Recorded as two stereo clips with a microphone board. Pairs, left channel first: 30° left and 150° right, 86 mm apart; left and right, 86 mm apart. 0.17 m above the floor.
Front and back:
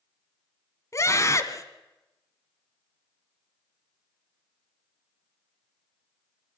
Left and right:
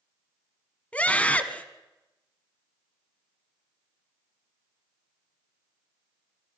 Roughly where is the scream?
Ahead left.